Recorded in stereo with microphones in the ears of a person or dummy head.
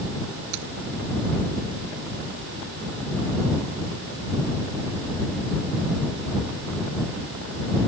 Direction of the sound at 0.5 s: 90° right.